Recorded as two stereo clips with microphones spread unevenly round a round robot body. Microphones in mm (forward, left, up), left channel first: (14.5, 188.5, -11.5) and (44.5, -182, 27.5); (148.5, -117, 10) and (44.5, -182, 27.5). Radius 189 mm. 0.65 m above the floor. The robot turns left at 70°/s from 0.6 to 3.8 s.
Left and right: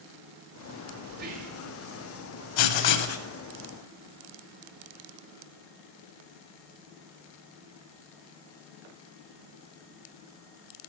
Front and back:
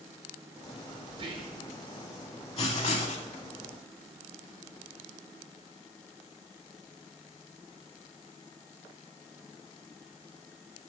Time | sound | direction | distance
1.1 | whispering | 130° right | 0.9 m
2.6 | writing | 85° left | 0.6 m